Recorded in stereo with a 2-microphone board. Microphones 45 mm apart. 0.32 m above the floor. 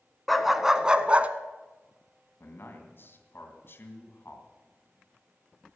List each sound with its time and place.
0.3 s a dog barking: centre (ahead or behind), 0.9 m; by 1.3 s 35° right (ahead or behind), 0.8 m
2.4 s a man speaking: 55° left (ahead or behind), 3 m